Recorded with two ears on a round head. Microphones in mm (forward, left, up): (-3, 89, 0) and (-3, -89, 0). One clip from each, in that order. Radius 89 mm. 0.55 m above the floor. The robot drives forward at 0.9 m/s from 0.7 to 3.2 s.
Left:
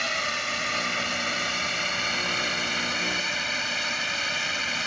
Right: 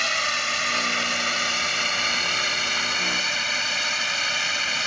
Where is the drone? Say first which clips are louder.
Right 4 dB; 35° right (ahead or behind); by 4.9 s 30° right (ahead or behind).